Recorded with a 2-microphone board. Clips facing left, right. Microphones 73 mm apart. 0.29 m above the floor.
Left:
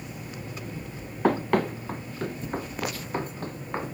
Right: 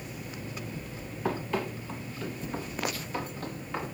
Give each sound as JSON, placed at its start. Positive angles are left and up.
{"t": 1.2, "sound": "running footsteps", "side_deg": 65, "distance_m": 1.4}